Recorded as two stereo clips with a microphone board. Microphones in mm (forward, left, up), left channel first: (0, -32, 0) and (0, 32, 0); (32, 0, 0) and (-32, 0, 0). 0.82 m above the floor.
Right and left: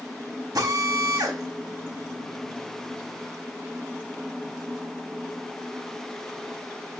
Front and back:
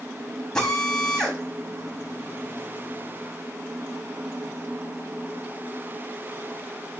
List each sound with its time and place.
0.6 s a drill: 80° left, 5 m